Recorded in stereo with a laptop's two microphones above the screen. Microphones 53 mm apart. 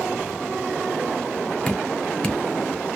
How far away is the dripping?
About 0.8 m.